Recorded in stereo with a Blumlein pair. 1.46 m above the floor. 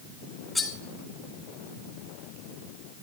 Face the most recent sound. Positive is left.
turn(degrees=10)